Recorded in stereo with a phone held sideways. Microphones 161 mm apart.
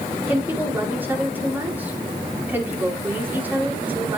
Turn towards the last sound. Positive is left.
turn(degrees=-10)  # may be behind; listen again after turning